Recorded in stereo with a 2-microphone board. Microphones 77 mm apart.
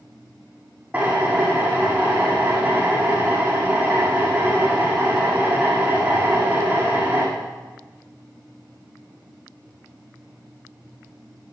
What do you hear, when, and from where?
0.9 s a drill: 20° right (ahead or behind), 8 m